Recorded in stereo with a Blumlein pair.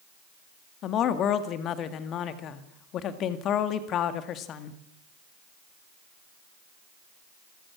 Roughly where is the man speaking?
Ahead left.